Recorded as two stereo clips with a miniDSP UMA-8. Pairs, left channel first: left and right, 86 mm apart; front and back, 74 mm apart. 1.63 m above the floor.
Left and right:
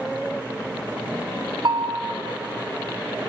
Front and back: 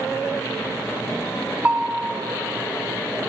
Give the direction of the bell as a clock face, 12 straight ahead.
4 o'clock.